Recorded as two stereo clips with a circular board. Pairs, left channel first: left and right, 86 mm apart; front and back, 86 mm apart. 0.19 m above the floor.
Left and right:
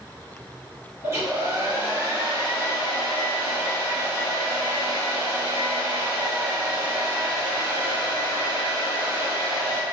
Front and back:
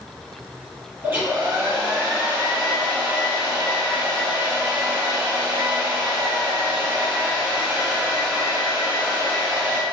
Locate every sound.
1.0 s a hair dryer: 130° right, 1.3 m